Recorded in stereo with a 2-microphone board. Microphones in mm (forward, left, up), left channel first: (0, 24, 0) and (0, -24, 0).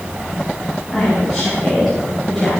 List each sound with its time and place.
0.9 s a woman speaking: 5° left (ahead or behind), 7.5 m; by 2.5 s 10° left (ahead or behind), 8.5 m